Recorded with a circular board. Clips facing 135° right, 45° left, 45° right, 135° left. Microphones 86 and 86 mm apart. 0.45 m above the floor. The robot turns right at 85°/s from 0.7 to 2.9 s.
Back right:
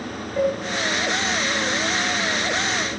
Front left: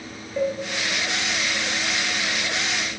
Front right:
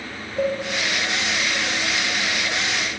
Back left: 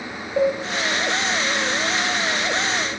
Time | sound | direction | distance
0.4 | a cowbell | 135° left | 7.5 m